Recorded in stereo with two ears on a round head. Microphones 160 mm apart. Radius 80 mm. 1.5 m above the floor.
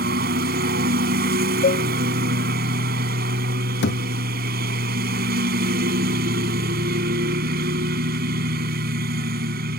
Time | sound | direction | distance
0.0 | a lawn mower | 60° right (ahead or behind) | ?
1.6 | a cowbell | 55° left (ahead or behind) | ?
3.8 | a thud | 70° left (ahead or behind) | ?